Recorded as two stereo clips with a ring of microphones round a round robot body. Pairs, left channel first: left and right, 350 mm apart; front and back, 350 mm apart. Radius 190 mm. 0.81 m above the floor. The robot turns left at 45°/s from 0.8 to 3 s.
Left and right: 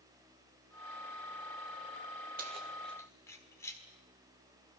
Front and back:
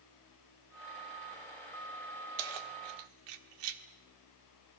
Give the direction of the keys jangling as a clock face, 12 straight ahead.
5 o'clock.